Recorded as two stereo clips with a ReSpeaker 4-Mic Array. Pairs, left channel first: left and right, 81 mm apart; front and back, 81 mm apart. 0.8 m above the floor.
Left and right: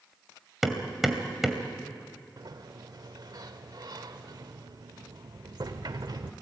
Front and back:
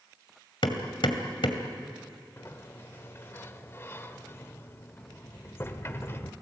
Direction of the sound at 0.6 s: 5° right.